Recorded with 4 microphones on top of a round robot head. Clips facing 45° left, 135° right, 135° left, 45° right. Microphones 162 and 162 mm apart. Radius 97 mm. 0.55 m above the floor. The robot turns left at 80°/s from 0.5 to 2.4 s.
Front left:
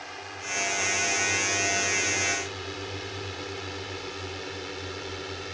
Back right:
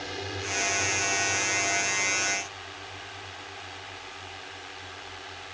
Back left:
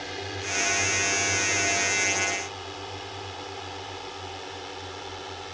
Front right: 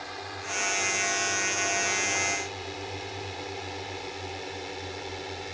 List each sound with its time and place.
0.0 s a drone: 175° right; by 5.5 s 30° left